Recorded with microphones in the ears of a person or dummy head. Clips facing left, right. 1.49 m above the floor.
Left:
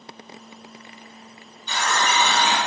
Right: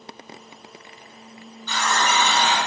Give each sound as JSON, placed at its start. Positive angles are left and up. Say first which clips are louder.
{"t": 1.7, "sound": "a running tap", "louder": "right 1 dB", "side_deg": 15, "distance_m": 1.8}